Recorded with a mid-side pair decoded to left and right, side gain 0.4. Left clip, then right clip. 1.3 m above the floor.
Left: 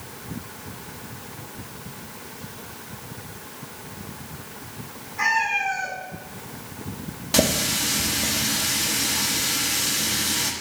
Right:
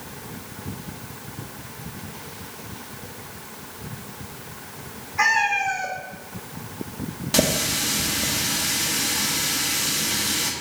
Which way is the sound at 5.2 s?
60° right.